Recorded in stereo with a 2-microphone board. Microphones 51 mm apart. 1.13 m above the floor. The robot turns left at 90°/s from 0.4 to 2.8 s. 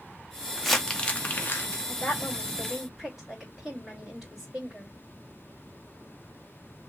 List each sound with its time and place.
0.6 s crumpling: 5° right (ahead or behind), 0.8 m; by 1.8 s 45° left (ahead or behind), 0.8 m
1.9 s a woman speaking: 65° left, 2.5 m; by 4.9 s 15° right, 2.5 m